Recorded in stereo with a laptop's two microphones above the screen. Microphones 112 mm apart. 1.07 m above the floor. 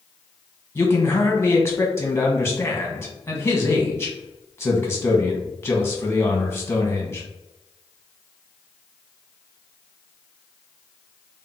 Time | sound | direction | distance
0.8 | a man speaking | 20° left (ahead or behind) | 1.0 m